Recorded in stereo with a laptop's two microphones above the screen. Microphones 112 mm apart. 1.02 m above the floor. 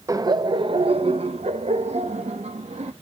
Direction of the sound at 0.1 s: 30° right (ahead or behind).